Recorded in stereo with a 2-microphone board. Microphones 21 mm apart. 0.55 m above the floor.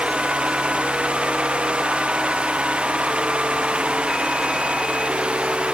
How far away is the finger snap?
No finger snap in this recording.